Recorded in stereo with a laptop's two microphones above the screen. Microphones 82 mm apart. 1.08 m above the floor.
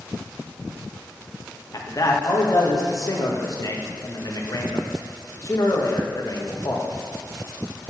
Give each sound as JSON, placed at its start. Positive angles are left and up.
{"t": 1.7, "sound": "a man speaking", "side_deg": 45, "distance_m": 1.4}